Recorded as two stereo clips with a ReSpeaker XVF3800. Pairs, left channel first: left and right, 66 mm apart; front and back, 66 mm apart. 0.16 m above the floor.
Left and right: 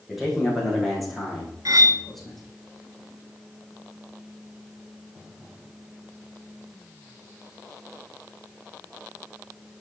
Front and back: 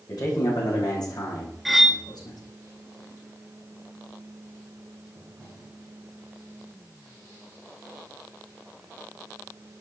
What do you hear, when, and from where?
0.1 s a man speaking: 5° right, 9.5 m; by 2.4 s straight ahead, 7.5 m
1.6 s cutlery clinking: 90° right, 1.3 m